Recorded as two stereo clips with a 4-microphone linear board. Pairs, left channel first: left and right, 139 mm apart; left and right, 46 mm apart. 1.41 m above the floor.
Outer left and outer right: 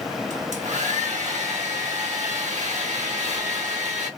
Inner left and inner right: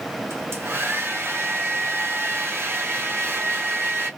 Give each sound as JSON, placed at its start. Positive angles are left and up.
{"t": 0.3, "sound": "a hair dryer", "side_deg": -55, "distance_m": 1.2}